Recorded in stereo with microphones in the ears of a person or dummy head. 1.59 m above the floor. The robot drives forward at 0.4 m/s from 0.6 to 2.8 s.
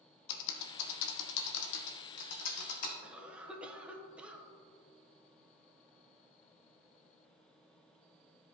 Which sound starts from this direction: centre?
A cough, at 3.0 s.